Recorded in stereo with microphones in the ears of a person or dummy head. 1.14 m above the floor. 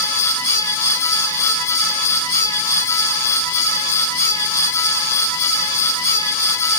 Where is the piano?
No piano in this recording.